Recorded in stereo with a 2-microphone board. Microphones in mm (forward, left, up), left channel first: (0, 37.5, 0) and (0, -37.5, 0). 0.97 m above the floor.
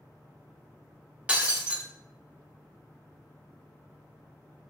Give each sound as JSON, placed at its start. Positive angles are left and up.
{"t": 1.3, "sound": "breaking glass", "side_deg": -15, "distance_m": 0.6}